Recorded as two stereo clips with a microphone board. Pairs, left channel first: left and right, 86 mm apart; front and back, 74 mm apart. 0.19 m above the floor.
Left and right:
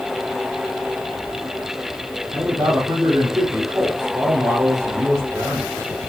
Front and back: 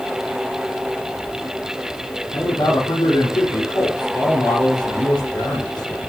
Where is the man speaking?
35° right, 7 m.